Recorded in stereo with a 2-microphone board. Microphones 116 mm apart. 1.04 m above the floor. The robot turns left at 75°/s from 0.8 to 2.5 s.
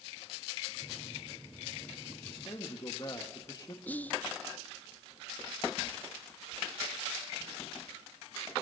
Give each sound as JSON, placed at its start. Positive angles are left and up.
{"t": 2.3, "sound": "a man speaking", "side_deg": 50, "distance_m": 1.5}
{"t": 3.9, "sound": "whispering", "side_deg": 15, "distance_m": 0.6}